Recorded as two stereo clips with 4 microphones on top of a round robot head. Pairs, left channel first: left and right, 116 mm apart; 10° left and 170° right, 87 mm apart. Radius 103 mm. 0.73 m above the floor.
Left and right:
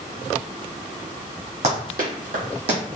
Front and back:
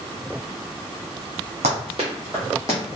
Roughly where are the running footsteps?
Behind right.